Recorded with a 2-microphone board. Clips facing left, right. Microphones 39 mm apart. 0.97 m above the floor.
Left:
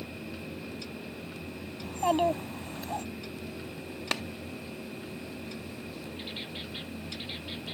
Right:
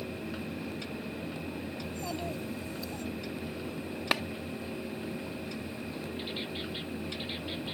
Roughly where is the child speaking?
Left.